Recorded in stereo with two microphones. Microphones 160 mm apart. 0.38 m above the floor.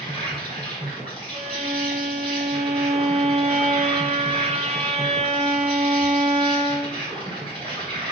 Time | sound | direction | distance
0.0 | an insect | 35° right (ahead or behind) | 3.5 m
1.3 | a violin | 45° right (ahead or behind) | 1.9 m